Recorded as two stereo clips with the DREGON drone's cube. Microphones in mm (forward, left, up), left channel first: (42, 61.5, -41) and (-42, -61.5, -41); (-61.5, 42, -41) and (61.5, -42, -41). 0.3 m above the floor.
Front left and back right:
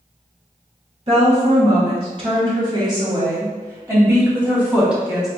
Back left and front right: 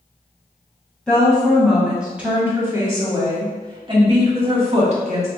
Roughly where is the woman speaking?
Behind right.